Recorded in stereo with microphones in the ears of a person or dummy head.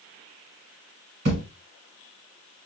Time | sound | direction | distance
1.2 | a thud | 30° right (ahead or behind) | 1.6 m